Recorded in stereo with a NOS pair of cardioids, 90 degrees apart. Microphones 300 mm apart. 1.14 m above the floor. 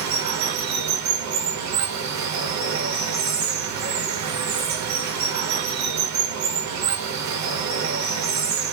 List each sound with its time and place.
0.0 s running water: 65° right, 0.8 m